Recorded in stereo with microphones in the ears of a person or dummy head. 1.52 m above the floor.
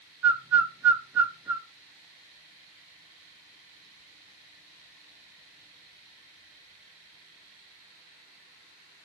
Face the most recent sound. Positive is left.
turn(degrees=-10)  # may be behind; listen again after turning